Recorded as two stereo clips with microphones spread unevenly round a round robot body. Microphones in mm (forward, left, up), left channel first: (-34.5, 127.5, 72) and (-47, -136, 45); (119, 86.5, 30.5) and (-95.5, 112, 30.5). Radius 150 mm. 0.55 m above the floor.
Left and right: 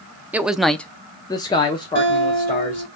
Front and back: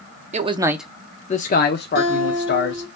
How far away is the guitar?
About 1.9 m.